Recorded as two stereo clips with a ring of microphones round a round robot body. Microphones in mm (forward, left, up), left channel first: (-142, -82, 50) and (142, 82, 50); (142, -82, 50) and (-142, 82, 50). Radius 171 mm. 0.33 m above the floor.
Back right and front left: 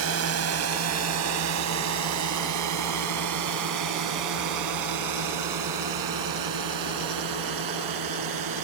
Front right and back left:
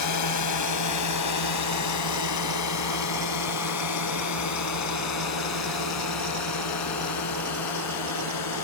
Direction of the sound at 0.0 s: 10° right.